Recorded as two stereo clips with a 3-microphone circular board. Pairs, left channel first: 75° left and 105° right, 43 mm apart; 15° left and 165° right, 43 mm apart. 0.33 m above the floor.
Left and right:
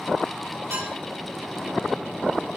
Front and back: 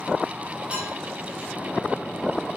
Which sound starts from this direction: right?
Dishes clattering, at 0.7 s.